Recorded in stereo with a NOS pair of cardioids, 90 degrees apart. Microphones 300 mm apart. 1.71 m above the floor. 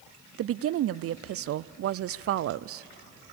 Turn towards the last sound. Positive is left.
turn(degrees=-50)